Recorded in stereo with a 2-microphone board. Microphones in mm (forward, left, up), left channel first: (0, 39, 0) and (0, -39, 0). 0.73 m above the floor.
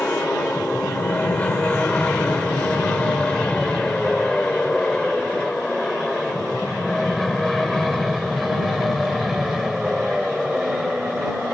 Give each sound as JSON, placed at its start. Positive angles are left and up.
{"t": 0.0, "sound": "an aircraft", "side_deg": 25}